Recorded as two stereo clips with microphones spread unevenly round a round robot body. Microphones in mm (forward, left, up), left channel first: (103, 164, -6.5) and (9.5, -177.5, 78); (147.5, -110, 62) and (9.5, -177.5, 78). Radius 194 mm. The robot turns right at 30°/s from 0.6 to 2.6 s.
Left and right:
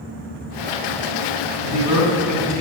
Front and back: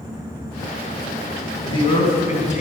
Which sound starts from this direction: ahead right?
A man speaking, at 1.6 s.